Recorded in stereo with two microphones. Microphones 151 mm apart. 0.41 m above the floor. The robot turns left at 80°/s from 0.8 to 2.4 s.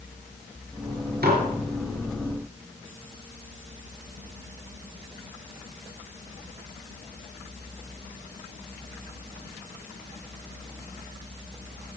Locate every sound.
1.2 s dishes clattering: 80° right, 4 m; by 1.4 s 60° right (ahead or behind), 4 m